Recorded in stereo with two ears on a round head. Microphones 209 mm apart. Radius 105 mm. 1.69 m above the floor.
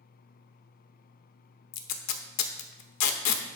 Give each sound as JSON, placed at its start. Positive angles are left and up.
{"t": 1.7, "sound": "tape being pulled", "side_deg": 80, "distance_m": 1.0}